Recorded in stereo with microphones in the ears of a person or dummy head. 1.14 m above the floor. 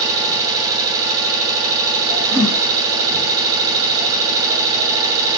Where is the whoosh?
5° left (ahead or behind), 1.8 m.